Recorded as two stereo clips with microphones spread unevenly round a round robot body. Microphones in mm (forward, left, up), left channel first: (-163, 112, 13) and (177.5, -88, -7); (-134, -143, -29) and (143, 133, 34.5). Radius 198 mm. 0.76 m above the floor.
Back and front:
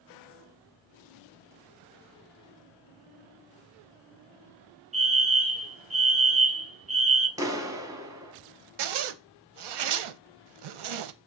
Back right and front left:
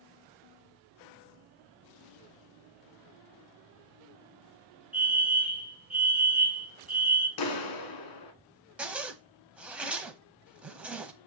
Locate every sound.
4.9 s a fire alarm: 60° right, 1.5 m
7.4 s a clap: 110° right, 1.3 m
8.8 s a zipper: 35° right, 0.8 m